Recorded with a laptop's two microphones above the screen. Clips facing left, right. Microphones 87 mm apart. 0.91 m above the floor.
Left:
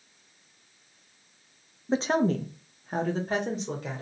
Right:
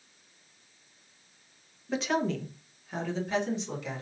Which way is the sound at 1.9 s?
25° left (ahead or behind).